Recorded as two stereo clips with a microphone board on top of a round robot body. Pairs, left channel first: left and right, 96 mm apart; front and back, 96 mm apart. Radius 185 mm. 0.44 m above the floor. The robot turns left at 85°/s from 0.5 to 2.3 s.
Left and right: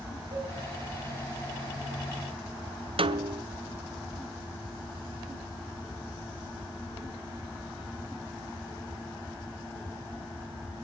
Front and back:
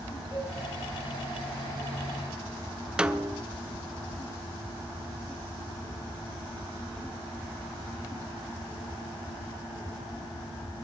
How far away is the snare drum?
About 0.9 m.